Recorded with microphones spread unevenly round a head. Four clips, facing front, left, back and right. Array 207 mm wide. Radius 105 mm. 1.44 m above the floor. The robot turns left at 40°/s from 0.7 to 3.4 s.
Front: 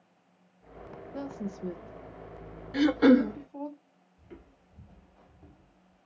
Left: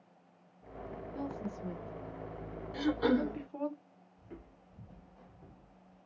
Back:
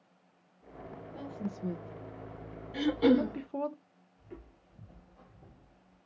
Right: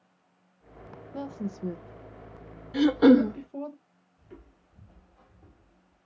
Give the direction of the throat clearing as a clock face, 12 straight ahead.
2 o'clock.